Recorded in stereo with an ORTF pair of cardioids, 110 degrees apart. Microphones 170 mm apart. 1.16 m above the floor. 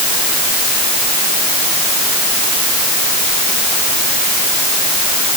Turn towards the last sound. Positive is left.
No sound to turn to.